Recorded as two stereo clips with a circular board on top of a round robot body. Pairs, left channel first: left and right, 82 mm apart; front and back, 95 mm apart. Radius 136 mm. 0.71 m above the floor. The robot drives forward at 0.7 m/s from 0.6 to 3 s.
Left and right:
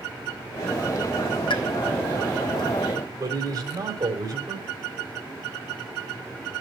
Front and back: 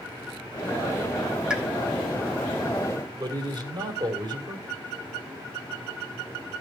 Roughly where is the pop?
Left.